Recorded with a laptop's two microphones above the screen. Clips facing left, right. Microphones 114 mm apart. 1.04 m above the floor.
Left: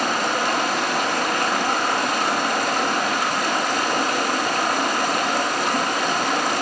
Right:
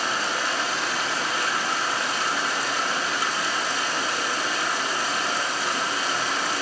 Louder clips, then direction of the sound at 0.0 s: Left 5 dB; 60° left (ahead or behind).